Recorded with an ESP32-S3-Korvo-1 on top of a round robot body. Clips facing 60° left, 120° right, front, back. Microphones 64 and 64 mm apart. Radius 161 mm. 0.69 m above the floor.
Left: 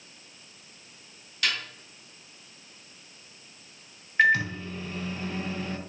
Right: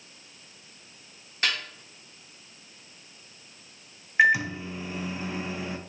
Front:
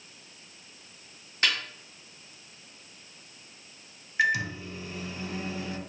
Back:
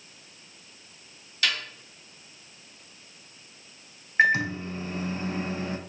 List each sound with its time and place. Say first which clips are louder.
1.4 s a snare drum: right 1 dB, even; 60° right, 0.6 m
4.2 s a microwave: right 1 dB, back 5 dB; 170° left, 0.6 m